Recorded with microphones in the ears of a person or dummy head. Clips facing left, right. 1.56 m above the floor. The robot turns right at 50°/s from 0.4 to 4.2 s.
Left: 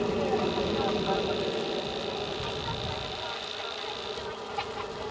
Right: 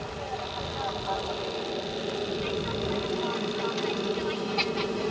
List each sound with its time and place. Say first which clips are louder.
0.0 s an aircraft: left 9 dB; 115° left; by 5.1 s 55° right